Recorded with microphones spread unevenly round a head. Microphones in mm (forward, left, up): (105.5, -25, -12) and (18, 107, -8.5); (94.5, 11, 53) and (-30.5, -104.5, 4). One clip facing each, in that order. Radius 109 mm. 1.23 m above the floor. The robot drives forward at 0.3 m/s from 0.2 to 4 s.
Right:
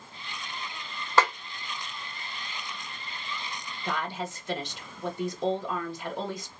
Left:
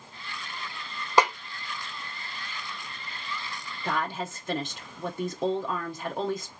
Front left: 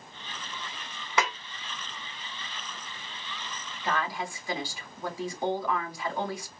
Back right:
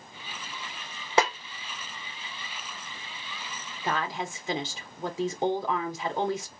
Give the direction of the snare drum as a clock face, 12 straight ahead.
6 o'clock.